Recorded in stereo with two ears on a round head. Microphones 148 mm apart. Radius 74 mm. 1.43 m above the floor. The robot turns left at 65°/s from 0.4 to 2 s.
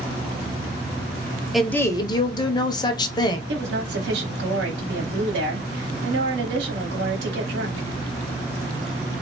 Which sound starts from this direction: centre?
A woman speaking, at 1.5 s.